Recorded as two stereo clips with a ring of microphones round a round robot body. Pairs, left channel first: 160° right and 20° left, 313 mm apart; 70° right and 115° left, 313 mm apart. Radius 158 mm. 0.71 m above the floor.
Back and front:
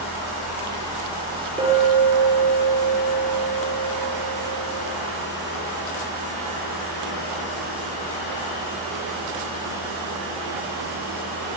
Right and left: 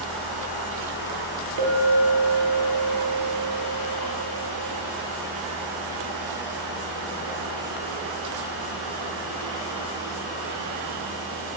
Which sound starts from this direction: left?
A clink, at 1.6 s.